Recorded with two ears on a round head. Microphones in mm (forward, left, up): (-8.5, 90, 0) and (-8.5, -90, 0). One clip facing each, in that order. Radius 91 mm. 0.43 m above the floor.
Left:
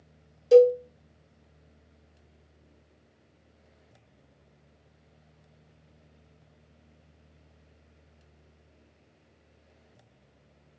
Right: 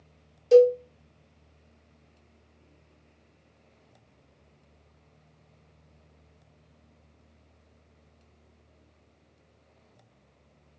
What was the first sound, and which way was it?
A cowbell, 5° left (ahead or behind).